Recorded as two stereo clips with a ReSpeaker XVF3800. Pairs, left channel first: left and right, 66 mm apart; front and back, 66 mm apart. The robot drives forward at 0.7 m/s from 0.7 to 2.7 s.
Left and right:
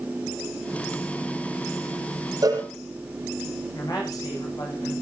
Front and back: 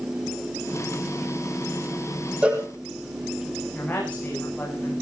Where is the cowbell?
110° right, 4 m.